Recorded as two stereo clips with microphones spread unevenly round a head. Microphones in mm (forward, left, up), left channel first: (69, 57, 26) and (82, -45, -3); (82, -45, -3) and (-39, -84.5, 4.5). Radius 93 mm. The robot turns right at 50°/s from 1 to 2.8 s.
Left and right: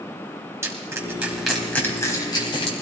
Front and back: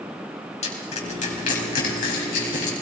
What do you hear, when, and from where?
0.6 s crushing: 15° right, 3.5 m; by 2.7 s 70° left, 3.5 m